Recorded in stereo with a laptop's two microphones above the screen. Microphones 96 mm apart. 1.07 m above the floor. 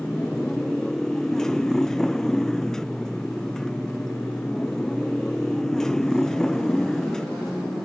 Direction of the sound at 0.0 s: 5° left (ahead or behind).